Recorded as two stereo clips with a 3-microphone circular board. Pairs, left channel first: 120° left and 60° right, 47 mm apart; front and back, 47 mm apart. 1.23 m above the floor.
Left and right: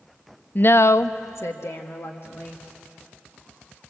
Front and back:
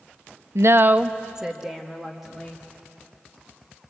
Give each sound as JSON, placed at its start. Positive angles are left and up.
{"t": 0.6, "sound": "a woman speaking", "azimuth_deg": 170, "distance_m": 0.5}